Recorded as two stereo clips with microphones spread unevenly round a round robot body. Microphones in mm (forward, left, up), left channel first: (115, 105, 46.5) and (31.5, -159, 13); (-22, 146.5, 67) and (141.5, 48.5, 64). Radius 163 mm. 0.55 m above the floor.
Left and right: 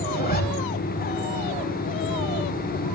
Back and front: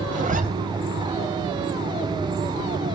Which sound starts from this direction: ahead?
A zipper, at 0.1 s.